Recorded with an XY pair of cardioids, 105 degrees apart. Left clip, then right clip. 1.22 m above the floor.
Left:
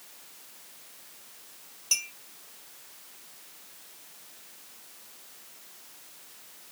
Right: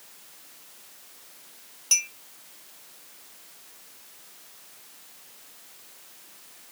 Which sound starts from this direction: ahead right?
A clink, at 1.9 s.